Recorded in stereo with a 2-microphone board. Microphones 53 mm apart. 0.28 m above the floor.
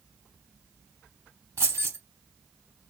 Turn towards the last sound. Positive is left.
turn(degrees=-55)  # may be behind; listen again after turning